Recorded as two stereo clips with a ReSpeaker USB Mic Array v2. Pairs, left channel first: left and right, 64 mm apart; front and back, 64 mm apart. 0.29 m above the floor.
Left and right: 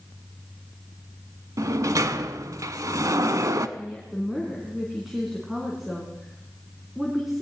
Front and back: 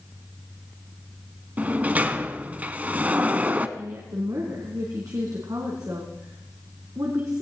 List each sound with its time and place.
1.6 s a sliding door: 115° right, 0.7 m
3.8 s a woman speaking: 175° right, 3 m